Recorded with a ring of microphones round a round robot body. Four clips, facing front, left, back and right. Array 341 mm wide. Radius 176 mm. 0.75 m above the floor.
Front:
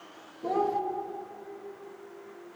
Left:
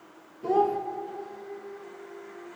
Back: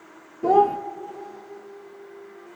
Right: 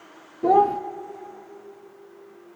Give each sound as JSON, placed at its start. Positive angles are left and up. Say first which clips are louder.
{"t": 0.4, "sound": "a child speaking", "louder": "right 6 dB, back 10 dB", "azimuth_deg": -130, "distance_m": 0.8}